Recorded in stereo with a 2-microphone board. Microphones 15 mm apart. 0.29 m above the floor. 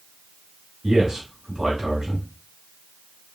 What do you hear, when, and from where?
0.8 s a man speaking: 30° right (ahead or behind), 1.5 m